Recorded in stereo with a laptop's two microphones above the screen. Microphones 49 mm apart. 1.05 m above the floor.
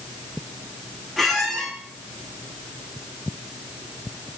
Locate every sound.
1.2 s a squeak: centre (ahead or behind), 1.1 m